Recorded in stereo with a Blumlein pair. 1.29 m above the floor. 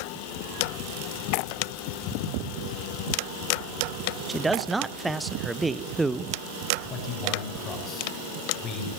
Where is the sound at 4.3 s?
10° right, 1.0 m.